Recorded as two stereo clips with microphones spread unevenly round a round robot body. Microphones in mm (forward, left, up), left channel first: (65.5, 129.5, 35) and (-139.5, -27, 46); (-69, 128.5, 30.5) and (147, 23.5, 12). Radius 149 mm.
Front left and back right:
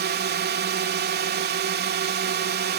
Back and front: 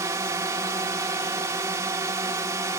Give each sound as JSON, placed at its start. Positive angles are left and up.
{"t": 0.0, "sound": "a drone", "azimuth_deg": -100}